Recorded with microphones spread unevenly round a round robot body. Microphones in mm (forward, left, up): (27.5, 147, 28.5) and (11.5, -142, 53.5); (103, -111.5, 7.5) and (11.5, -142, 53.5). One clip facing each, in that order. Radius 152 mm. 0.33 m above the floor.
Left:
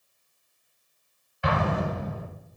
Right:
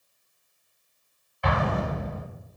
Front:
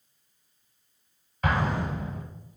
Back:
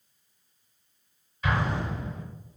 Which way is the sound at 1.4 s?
5° left.